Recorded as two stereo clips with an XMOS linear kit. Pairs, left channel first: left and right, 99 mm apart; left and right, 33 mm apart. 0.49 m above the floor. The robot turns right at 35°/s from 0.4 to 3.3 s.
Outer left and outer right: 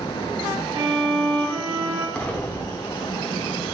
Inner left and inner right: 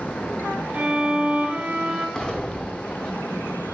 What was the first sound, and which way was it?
A violin, 115° right.